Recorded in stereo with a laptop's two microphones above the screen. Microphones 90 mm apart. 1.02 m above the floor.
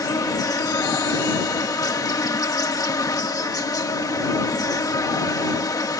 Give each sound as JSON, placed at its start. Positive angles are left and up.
{"t": 0.0, "sound": "an insect", "side_deg": 45}